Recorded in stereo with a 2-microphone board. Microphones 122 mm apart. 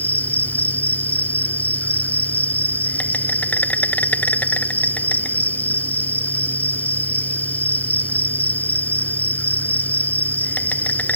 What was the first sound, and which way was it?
An insect, 15° left (ahead or behind).